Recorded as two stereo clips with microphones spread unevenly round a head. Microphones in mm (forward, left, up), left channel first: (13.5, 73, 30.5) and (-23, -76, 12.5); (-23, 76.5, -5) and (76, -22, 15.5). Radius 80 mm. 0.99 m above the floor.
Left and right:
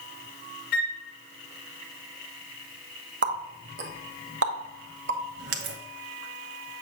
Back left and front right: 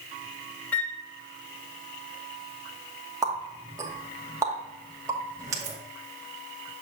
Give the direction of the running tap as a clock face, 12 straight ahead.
4 o'clock.